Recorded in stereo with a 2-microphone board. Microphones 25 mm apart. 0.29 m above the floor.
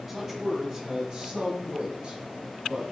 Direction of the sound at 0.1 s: 10° right (ahead or behind).